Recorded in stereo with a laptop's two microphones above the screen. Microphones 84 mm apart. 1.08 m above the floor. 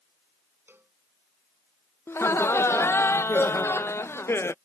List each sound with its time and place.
0.7 s a cowbell: 25° right (ahead or behind)
2.1 s laughter: 30° left (ahead or behind)